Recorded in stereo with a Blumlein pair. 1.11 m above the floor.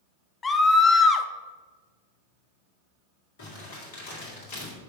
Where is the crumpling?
50° left, 2 m.